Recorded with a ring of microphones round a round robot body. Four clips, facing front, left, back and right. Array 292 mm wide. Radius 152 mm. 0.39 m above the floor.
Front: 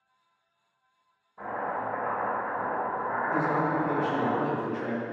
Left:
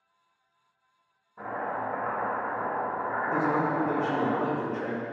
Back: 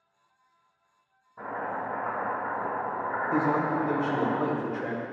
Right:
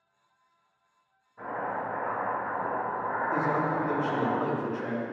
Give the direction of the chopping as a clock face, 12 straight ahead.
7 o'clock.